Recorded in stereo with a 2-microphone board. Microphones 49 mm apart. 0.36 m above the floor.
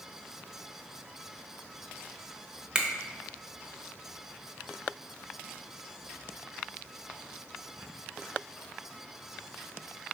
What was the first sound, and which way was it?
A finger snap, 15° right (ahead or behind).